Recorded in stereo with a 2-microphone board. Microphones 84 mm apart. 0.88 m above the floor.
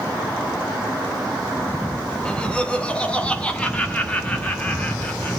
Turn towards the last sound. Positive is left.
turn(degrees=15)  # may be behind; listen again after turning